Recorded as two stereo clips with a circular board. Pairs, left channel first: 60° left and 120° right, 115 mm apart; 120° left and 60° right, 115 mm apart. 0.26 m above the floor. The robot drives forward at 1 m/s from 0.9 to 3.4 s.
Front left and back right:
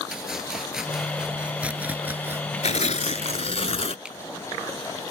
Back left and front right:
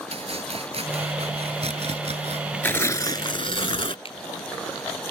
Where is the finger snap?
160° left.